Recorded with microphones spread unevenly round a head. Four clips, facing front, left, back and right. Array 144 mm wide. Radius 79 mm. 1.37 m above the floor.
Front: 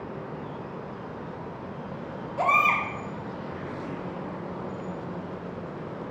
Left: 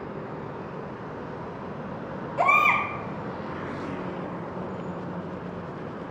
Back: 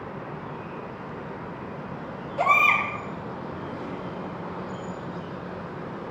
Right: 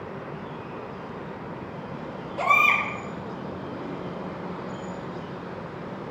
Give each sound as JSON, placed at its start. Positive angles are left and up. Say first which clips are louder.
{"t": 2.4, "sound": "a baby crying", "louder": "left 1 dB, back 2 dB", "azimuth_deg": 30, "distance_m": 1.5}